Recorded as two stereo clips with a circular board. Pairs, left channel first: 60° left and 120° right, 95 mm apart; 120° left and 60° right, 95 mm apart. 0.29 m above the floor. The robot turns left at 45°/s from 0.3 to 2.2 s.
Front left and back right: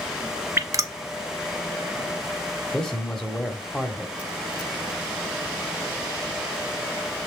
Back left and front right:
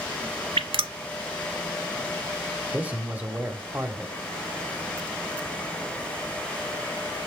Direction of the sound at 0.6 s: 60° right.